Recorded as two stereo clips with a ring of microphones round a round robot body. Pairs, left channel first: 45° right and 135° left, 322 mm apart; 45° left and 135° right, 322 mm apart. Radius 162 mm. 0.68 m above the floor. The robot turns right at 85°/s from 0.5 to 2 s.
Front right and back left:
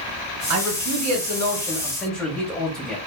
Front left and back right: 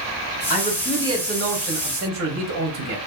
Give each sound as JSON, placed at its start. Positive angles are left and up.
{"t": 0.5, "sound": "a man speaking", "azimuth_deg": 100, "distance_m": 1.0}